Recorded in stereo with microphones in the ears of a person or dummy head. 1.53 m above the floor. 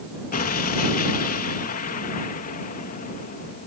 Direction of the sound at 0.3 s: 45° left (ahead or behind).